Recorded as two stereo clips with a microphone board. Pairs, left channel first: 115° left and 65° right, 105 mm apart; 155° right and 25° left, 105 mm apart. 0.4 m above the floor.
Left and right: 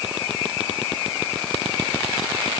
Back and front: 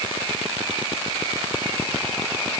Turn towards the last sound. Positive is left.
No sound to turn to.